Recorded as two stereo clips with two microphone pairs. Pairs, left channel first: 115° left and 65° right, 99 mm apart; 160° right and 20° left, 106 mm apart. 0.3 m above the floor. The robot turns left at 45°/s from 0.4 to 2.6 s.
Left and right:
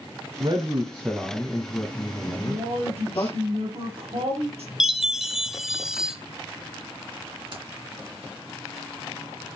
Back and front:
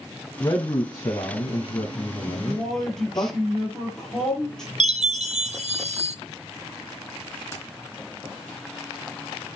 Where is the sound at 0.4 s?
105° right, 2 m; by 3.3 s 155° left, 2 m.